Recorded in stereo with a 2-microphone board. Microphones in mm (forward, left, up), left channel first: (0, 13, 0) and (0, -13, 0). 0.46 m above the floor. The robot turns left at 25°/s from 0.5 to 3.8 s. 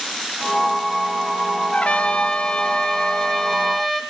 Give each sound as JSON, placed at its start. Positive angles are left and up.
{"t": 1.7, "sound": "a trumpet", "azimuth_deg": 65, "distance_m": 5.5}